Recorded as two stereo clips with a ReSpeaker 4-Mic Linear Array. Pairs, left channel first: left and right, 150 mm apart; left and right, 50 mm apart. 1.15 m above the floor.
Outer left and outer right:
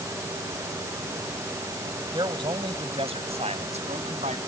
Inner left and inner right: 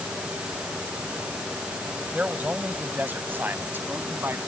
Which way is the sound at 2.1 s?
30° right (ahead or behind).